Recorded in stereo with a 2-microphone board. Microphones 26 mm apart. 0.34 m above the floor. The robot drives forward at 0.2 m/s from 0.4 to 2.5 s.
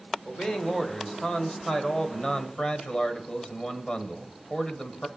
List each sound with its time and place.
0.2 s a man speaking: 35° left (ahead or behind), 1.3 m; by 5.1 s 45° left (ahead or behind), 1.1 m